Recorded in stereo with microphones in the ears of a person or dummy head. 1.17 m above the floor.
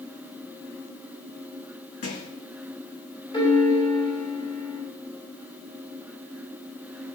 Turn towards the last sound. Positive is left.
turn(degrees=25)  # may be behind; listen again after turning